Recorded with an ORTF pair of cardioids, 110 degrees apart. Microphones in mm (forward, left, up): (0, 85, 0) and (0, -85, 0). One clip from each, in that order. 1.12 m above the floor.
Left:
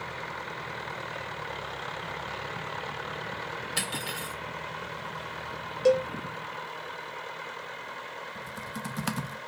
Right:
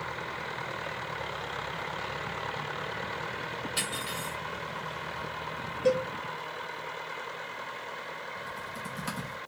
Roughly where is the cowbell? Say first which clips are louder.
Left 4 dB; ahead left.